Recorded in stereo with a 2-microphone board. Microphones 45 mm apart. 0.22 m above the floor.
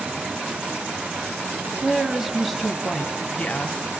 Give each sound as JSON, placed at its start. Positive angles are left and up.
{"t": 1.8, "sound": "a woman speaking", "side_deg": -15, "distance_m": 1.8}